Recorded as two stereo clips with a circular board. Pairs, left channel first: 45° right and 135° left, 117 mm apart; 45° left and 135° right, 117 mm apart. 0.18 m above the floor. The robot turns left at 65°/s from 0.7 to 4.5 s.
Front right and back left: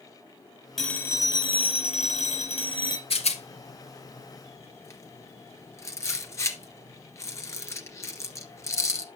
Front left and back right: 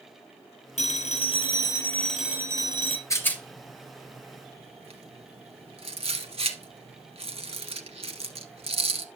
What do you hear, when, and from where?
0.8 s a phone ringing: 40° left, 3 m; by 3.0 s 105° right, 3 m
3.1 s a rattle: 15° right, 1.6 m; by 9.1 s 110° right, 1.6 m